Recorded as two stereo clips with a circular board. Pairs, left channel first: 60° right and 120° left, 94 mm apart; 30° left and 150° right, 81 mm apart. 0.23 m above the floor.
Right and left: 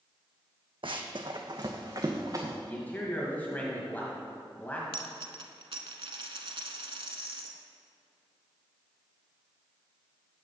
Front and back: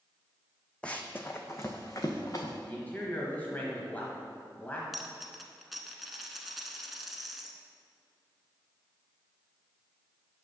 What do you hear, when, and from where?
0.8 s running footsteps: 105° left, 0.7 m; by 2.5 s 70° left, 1.4 m
2.7 s a man speaking: 10° right, 1.2 m
4.9 s a dropped coin: 120° left, 0.8 m